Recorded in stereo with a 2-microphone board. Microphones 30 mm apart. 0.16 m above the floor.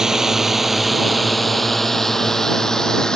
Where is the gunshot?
No gunshot in this recording.